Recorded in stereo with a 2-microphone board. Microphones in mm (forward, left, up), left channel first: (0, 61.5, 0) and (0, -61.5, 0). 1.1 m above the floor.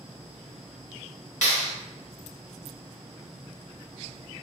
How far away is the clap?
About 1.3 m.